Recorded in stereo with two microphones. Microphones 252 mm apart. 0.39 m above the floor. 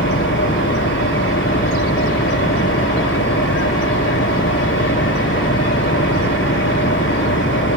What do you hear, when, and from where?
0.0 s an engine running: 50° left (ahead or behind)